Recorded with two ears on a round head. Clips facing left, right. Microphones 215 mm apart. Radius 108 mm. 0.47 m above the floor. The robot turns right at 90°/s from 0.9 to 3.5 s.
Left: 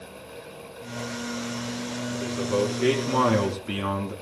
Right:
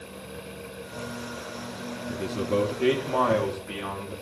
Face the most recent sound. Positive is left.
turn(degrees=55)